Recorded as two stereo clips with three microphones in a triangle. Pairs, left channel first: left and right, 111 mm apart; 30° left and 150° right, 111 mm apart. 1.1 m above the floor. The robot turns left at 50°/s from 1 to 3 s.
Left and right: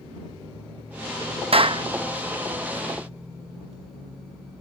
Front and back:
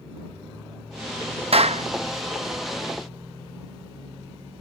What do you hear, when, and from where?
1.5 s a clap: 120° right; by 1.8 s 135° right